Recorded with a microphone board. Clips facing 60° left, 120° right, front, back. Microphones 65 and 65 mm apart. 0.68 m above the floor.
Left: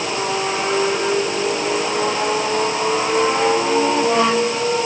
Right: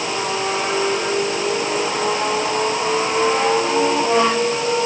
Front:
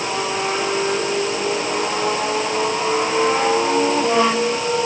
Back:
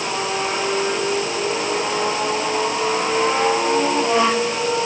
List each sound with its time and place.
Only background noise.